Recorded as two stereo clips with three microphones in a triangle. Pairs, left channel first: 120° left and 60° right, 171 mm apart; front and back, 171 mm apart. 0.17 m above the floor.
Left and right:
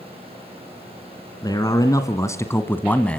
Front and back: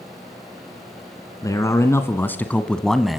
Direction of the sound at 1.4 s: 65° left.